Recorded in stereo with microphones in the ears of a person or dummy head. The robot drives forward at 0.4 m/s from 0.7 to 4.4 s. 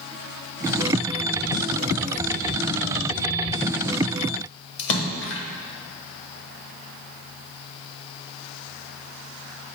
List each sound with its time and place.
4.8 s a splash: 60° left (ahead or behind), 0.9 m